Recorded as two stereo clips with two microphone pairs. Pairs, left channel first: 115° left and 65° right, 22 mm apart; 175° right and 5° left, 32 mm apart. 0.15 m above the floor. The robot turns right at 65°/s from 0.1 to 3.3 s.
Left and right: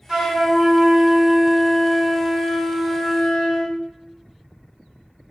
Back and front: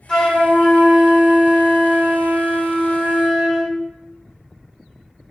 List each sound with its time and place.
0.1 s a flute: 110° right, 1.7 m; by 3.7 s 100° left, 1.7 m